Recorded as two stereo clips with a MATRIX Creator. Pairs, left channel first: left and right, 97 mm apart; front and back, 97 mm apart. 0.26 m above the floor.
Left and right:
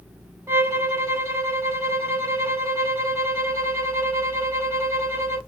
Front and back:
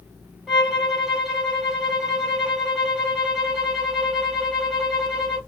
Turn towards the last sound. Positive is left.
turn(degrees=-105)